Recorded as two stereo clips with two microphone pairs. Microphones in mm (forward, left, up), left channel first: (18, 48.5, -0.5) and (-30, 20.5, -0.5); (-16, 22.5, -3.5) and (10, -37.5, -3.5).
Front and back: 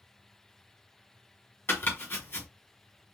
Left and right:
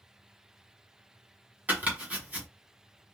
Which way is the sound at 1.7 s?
5° right.